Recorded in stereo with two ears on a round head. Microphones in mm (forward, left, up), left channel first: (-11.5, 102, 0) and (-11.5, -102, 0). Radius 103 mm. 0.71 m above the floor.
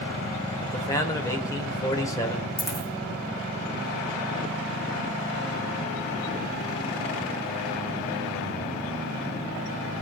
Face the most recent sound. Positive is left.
turn(degrees=10)  # may be behind; listen again after turning